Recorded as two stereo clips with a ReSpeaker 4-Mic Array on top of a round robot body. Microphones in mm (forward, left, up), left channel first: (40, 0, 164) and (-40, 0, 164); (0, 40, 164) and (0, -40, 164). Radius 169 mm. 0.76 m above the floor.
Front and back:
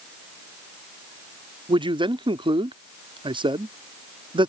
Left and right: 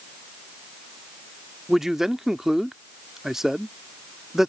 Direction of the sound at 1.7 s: 175° right.